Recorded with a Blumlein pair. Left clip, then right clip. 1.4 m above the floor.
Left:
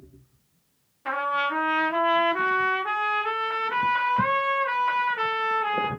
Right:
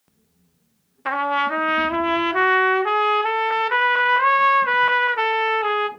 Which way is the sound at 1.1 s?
65° right.